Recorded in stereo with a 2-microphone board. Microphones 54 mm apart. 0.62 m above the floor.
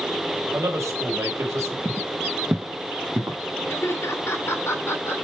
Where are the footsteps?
40° right (ahead or behind), 1.2 m; by 3.4 s 65° right (ahead or behind), 2 m.